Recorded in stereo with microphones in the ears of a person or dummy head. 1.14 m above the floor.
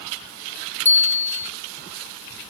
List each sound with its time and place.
0.8 s a bicycle bell: 10° left (ahead or behind), 2.5 m